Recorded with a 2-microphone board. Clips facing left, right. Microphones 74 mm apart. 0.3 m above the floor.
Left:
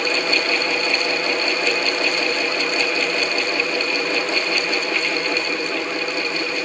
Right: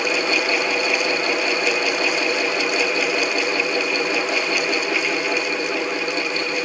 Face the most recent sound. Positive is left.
No sound to turn to.